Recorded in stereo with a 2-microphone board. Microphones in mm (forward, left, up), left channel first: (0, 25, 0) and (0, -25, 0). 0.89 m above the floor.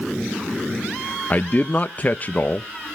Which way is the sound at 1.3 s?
35° left (ahead or behind).